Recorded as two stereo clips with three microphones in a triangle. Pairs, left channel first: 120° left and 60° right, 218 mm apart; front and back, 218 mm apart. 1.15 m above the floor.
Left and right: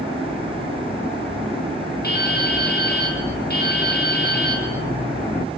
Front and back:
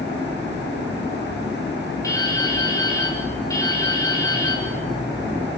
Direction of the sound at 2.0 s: 75° left.